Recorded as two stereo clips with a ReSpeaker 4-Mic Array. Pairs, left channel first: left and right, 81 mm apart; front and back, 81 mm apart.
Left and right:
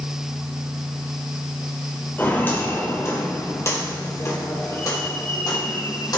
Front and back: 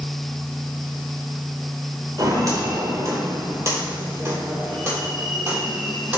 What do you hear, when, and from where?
2.2 s footsteps: 150° left, 2.5 m; by 6.2 s 115° left, 3.5 m